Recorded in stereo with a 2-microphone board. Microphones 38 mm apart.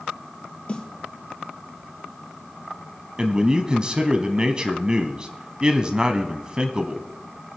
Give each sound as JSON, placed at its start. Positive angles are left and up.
{"t": 0.7, "sound": "a snare drum", "side_deg": 30, "distance_m": 3.0}
{"t": 3.2, "sound": "a man speaking", "side_deg": -25, "distance_m": 1.0}